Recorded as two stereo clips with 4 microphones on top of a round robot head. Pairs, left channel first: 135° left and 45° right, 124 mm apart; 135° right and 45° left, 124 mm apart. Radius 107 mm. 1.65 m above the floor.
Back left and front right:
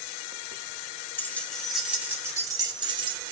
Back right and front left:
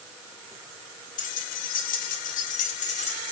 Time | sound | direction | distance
1.2 | keys jangling | 150° right | 2.5 m